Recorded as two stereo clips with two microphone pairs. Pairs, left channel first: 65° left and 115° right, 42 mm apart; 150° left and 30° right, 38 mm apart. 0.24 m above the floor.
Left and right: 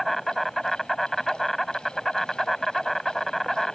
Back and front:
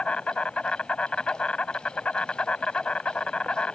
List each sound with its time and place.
0.0 s an insect: 145° left